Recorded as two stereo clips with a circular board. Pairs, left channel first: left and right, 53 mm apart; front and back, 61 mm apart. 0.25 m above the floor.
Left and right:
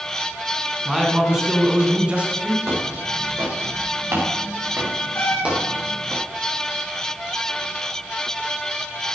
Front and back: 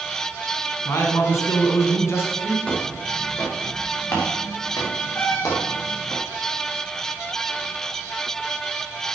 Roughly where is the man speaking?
Ahead.